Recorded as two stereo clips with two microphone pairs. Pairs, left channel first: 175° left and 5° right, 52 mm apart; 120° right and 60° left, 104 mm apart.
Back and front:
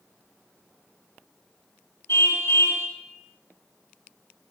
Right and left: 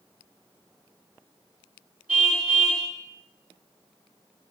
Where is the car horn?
135° left, 9 m.